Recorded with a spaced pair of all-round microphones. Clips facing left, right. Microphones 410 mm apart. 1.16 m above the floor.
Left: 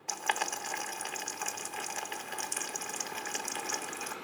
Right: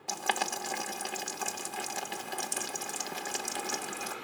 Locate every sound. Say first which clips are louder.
0.1 s boiling: right 3 dB; 55° right (ahead or behind), 0.9 m